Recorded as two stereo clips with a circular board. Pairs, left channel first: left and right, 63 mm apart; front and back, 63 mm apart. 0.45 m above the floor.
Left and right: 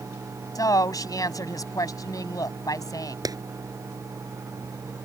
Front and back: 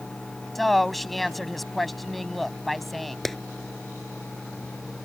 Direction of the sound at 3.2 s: 85° right.